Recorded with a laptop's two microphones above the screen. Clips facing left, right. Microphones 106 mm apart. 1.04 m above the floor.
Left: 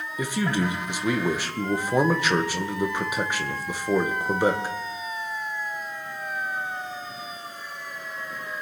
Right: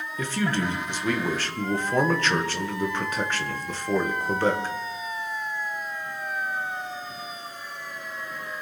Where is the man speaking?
10° left (ahead or behind), 0.8 m.